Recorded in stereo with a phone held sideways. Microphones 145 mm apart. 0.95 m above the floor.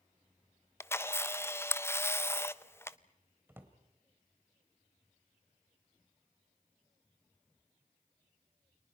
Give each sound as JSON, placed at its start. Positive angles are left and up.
{"t": 0.8, "sound": "a camera shutter", "side_deg": 15, "distance_m": 0.5}
{"t": 3.5, "sound": "a drawer", "side_deg": -15, "distance_m": 1.9}